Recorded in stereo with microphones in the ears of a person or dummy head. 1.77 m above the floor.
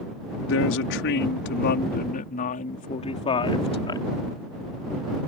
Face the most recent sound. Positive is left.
turn(degrees=20)  # may be behind; listen again after turning